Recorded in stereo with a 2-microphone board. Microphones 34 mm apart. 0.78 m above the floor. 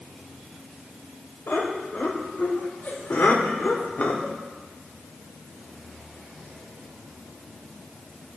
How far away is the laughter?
About 3.5 m.